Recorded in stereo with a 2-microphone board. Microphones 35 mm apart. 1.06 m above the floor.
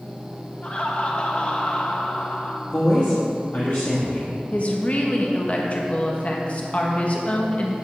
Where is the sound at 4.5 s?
40° left (ahead or behind), 1.5 m.